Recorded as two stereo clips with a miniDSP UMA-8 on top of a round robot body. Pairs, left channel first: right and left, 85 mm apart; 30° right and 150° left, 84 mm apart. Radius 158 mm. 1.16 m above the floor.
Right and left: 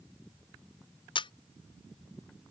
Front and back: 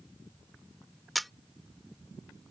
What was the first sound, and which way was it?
A camera shutter, 120° right.